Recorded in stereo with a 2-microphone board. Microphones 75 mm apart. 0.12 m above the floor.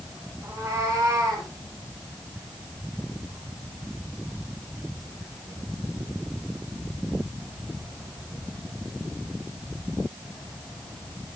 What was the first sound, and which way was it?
A cat meowing, 35° right (ahead or behind).